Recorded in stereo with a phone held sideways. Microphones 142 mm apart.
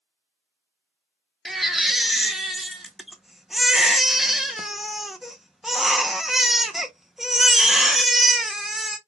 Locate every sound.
1.4 s a baby crying: centre (ahead or behind), 0.6 m